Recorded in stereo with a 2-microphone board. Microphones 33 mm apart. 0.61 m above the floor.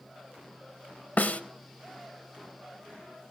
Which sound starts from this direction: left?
A snare drum, at 1.2 s.